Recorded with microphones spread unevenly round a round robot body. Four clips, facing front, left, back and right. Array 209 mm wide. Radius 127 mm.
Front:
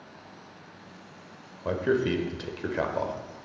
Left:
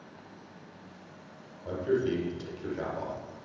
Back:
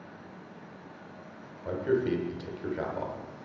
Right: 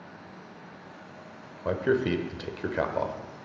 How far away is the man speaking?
About 1.4 m.